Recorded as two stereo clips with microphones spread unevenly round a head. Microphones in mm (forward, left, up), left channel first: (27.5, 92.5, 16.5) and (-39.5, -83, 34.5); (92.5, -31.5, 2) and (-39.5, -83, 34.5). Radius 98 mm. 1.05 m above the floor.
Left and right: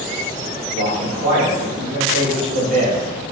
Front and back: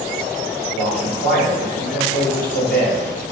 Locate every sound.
0.7 s a man speaking: 20° left, 2 m